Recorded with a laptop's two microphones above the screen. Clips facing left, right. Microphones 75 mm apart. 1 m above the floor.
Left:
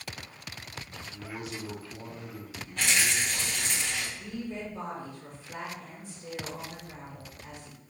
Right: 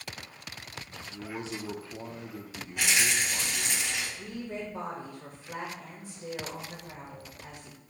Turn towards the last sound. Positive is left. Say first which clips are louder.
# even
turn(degrees=-70)  # may be behind; listen again after turning